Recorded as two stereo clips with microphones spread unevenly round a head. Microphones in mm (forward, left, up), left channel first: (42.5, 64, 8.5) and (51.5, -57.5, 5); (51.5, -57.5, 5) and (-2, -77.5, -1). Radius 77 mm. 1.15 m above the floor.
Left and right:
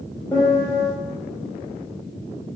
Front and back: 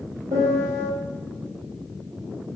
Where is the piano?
170° left, 1.2 m.